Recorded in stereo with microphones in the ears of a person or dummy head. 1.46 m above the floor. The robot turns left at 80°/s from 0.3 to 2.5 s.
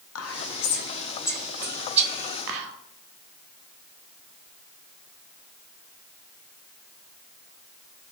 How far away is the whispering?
About 0.5 m.